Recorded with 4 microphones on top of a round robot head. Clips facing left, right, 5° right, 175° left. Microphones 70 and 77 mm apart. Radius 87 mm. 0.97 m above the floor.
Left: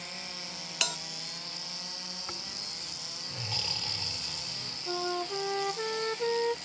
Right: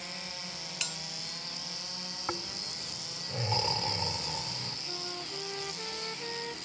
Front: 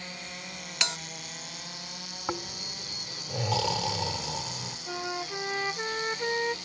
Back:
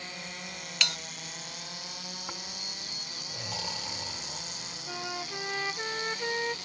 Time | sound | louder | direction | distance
0.8 | a bell | left 9 dB, front 1 dB | 65° left | ?
2.3 | snoring | right 6 dB, front 7 dB | 20° right | ?
4.9 | a flute | left 13 dB, front 3 dB | 75° left | ?